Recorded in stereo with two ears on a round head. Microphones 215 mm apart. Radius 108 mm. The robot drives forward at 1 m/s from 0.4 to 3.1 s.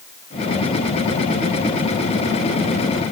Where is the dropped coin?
No dropped coin in this recording.